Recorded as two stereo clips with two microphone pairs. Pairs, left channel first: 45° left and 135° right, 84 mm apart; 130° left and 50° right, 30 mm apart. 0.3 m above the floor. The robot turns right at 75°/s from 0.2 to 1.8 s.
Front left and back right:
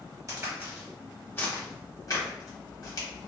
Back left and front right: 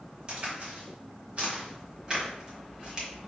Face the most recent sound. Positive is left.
turn(degrees=15)